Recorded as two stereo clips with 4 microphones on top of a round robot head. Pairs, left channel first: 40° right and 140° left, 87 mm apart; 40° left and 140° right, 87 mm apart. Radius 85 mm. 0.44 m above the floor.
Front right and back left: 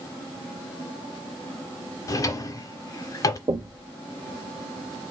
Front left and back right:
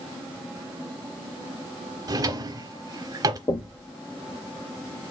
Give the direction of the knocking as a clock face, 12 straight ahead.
9 o'clock.